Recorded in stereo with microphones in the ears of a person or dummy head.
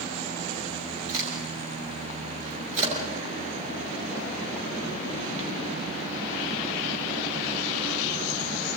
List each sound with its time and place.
1.1 s a crack: 40° right (ahead or behind), 7 m